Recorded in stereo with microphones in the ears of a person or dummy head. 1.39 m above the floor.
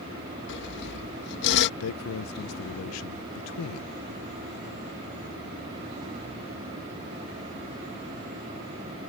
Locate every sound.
0.5 s sawing: 60° left (ahead or behind)
1.8 s a man speaking: 75° left (ahead or behind)